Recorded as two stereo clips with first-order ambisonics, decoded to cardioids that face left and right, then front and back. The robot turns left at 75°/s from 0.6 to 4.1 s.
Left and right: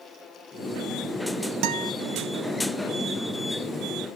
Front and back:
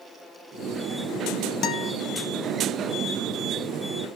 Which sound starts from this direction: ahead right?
A guitar, at 1.6 s.